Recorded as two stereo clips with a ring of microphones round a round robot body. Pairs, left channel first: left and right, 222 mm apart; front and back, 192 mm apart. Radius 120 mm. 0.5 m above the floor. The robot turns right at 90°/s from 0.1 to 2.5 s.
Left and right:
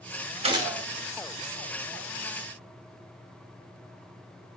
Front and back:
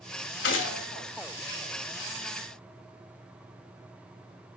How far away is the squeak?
I don't hear a squeak.